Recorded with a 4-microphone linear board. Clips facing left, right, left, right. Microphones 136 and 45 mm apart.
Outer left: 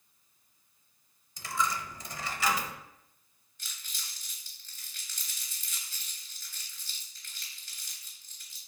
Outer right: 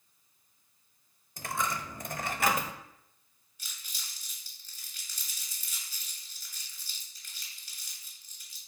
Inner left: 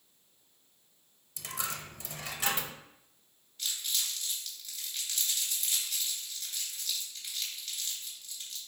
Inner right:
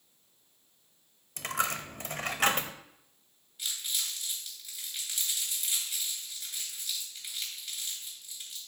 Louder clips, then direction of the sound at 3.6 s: Outer left 1 dB, even; 15° right (ahead or behind).